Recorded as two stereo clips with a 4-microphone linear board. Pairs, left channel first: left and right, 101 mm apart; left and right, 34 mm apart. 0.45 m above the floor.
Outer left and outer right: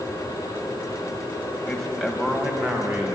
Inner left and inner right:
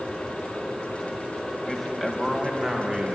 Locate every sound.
1.7 s a man speaking: 10° left (ahead or behind), 3 m; by 3.1 s 25° right (ahead or behind), 4 m